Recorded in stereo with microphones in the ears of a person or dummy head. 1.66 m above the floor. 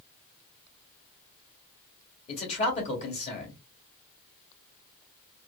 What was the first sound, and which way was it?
A man speaking, 40° left (ahead or behind).